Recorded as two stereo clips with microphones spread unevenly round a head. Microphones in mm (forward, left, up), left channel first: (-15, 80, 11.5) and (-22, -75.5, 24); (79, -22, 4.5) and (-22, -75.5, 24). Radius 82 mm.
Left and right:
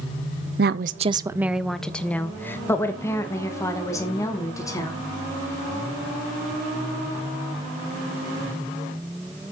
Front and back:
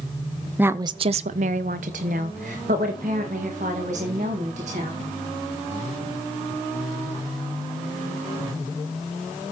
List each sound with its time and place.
0.6 s a woman speaking: 80° right, 0.6 m; by 5.0 s 155° left, 4.5 m